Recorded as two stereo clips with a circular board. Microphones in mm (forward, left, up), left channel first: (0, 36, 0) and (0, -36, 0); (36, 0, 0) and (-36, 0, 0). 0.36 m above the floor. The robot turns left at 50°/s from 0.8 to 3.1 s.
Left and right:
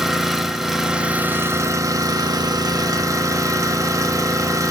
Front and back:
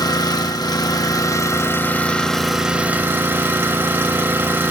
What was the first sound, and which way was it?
An engine running, 5° right.